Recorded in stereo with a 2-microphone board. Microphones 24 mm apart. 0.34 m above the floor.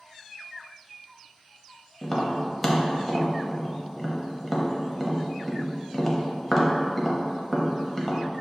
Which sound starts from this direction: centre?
Tapping, at 2.0 s.